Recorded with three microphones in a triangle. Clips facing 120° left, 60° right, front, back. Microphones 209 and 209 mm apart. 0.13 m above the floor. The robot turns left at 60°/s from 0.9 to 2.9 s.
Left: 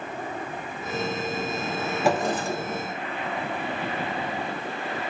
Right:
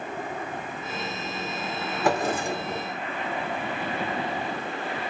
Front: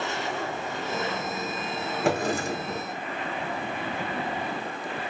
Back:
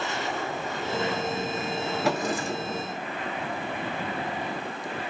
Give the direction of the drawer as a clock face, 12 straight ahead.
11 o'clock.